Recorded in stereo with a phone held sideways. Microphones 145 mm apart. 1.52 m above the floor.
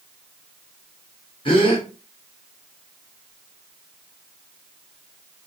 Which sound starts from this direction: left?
A gasp, at 1.4 s.